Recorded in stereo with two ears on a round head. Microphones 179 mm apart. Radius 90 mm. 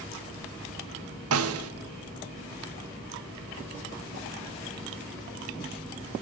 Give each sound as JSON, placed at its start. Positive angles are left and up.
{"t": 1.3, "sound": "a snare drum", "side_deg": -75, "distance_m": 0.5}